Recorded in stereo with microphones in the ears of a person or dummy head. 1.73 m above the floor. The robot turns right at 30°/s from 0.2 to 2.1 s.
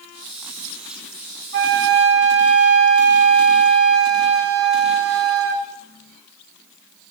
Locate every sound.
1.5 s a flute: 55° right (ahead or behind), 2.0 m; by 5.7 s 70° right (ahead or behind), 2.0 m